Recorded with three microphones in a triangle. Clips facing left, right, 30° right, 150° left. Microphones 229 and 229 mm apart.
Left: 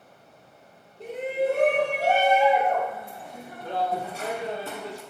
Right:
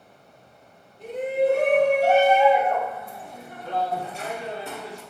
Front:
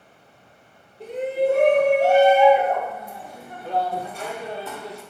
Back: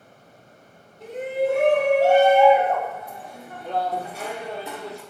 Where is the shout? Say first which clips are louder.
Right 4 dB, front 2 dB; 20° left, 3 m; by 5.0 s 90° left, 2 m.